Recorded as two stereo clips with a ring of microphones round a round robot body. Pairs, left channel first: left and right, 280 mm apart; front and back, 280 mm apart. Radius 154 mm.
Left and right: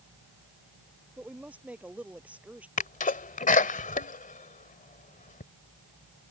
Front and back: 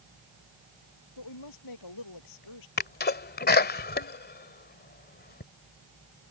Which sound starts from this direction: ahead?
A woman speaking, at 1.2 s.